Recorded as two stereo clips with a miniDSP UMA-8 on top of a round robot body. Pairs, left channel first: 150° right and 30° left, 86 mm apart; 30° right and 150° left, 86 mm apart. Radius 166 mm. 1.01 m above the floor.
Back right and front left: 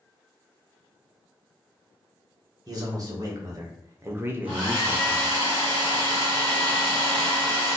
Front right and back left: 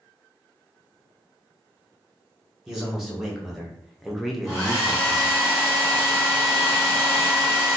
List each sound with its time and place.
2.7 s a man speaking: 65° left, 1.6 m; by 5.3 s 110° right, 0.8 m
4.5 s a hair dryer: 35° left, 1.7 m